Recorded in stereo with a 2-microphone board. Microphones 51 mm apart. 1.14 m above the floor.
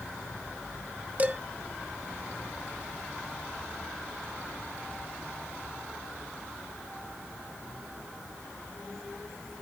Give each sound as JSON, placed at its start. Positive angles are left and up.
{"t": 1.2, "sound": "dishes clattering", "side_deg": -30, "distance_m": 0.8}